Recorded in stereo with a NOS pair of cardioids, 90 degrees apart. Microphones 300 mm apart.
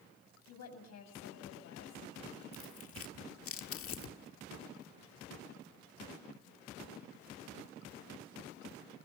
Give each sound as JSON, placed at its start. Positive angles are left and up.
{"t": 0.5, "sound": "a woman speaking", "azimuth_deg": 60, "distance_m": 7.0}
{"t": 2.5, "sound": "tearing paper", "azimuth_deg": 50, "distance_m": 1.5}